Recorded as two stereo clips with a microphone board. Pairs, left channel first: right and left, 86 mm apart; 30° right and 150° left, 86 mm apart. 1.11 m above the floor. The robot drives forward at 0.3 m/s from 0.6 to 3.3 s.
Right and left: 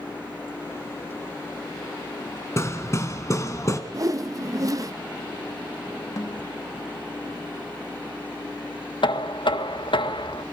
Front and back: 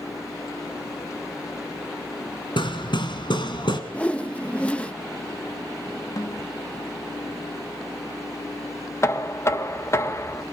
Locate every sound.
2.6 s hammering: 35° right, 2.5 m; by 3.8 s 40° right, 2.5 m
3.9 s a whoosh: 45° left, 1.1 m
6.2 s a snare drum: 55° right, 1.0 m
9.0 s knocking: 85° right, 1.1 m